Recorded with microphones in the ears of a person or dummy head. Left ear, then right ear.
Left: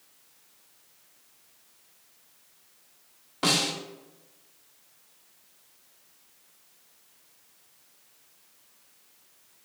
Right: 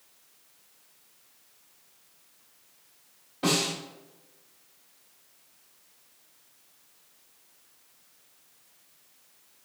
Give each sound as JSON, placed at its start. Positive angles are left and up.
{"t": 3.4, "sound": "a snare drum", "side_deg": 40, "distance_m": 1.9}